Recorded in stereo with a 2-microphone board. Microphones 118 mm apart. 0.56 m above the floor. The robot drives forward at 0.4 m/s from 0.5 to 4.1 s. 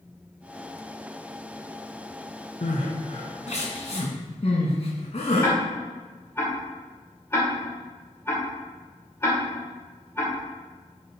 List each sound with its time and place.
2.6 s crying: 75° left (ahead or behind), 1.4 m; by 5.5 s 55° left (ahead or behind), 1.7 m
5.4 s ticking: 20° left (ahead or behind), 2.5 m